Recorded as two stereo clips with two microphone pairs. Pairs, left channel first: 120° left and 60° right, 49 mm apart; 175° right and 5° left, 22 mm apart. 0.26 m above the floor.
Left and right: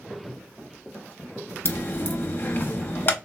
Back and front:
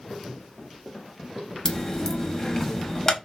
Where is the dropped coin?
130° left, 0.6 m.